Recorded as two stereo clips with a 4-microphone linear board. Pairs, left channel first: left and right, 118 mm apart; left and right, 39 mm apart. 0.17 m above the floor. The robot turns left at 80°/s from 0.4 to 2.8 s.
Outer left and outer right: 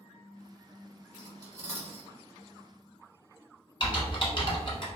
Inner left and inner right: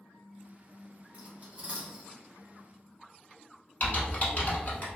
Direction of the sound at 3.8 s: 45° left (ahead or behind).